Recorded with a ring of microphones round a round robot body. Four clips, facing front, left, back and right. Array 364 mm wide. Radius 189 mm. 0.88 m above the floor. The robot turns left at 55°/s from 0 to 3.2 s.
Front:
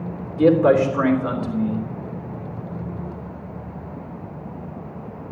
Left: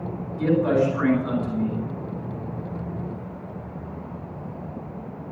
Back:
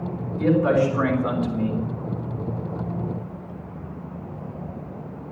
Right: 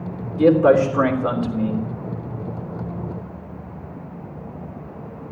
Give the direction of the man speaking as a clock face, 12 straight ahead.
2 o'clock.